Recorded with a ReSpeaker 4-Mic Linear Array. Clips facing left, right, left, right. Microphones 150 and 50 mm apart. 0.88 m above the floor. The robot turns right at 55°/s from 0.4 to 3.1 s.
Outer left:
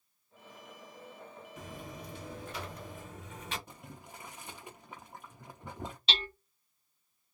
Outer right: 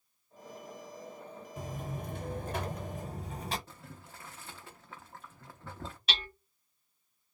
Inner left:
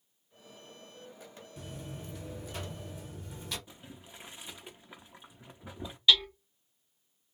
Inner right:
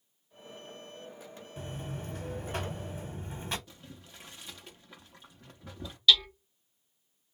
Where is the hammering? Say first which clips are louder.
Outer left 2 dB, inner right 1 dB; 25° left (ahead or behind), 1.0 m.